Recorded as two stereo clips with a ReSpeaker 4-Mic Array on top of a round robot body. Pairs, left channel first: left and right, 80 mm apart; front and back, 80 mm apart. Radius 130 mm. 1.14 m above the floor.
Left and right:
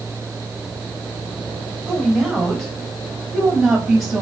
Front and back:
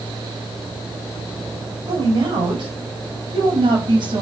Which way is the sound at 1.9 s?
170° left.